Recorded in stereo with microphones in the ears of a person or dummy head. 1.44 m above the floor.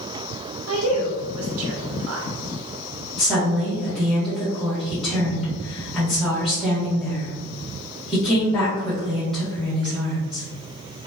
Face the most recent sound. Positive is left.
turn(degrees=5)  # may be behind; listen again after turning